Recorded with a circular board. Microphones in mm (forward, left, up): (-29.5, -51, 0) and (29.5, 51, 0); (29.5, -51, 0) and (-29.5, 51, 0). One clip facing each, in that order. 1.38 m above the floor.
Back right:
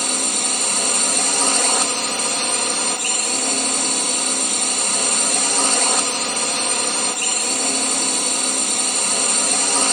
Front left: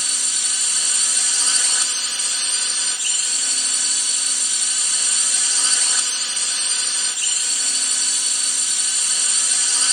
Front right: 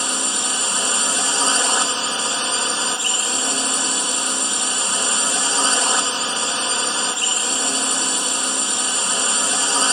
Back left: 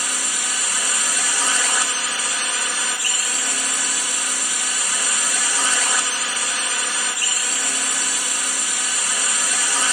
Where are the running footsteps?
I don't hear running footsteps.